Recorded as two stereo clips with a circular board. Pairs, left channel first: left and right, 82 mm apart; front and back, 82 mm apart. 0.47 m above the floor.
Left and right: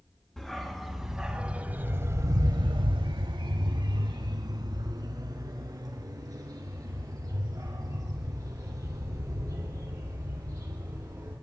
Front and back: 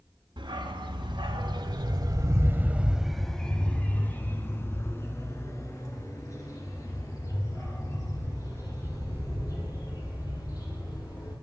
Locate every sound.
0.4 s a dog barking: 175° left, 1.7 m; by 11.3 s 40° right, 6.5 m